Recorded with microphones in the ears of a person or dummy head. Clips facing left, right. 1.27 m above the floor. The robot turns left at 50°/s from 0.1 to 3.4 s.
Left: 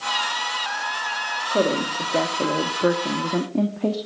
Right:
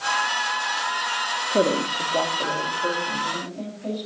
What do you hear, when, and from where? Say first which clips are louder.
1.5 s a woman speaking: even; 170° right, 2 m; by 4.0 s 95° left, 2 m